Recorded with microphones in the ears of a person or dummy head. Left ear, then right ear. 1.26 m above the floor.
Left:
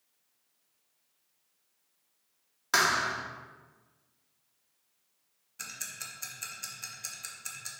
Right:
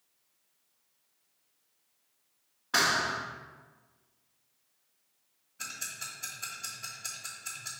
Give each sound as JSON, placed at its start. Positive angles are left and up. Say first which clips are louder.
{"t": 2.7, "sound": "a thud", "louder": "left 1 dB", "side_deg": 70, "distance_m": 1.4}
{"t": 5.6, "sound": "ticking", "louder": "right 2 dB", "side_deg": 80, "distance_m": 1.5}